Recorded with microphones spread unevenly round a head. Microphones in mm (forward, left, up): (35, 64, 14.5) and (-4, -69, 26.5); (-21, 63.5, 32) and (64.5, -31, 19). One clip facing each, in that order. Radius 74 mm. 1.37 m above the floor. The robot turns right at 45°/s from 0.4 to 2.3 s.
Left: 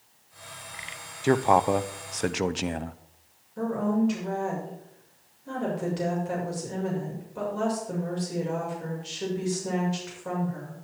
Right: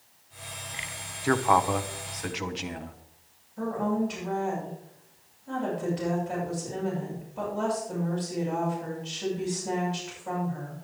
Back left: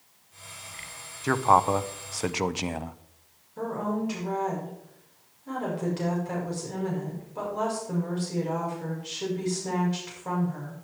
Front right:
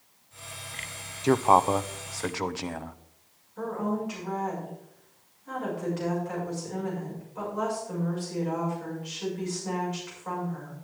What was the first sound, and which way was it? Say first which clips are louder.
A man speaking: left 2 dB, front right 1 dB; 10° left.